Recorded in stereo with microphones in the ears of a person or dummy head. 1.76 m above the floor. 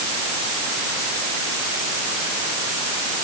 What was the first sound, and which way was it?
Only background noise.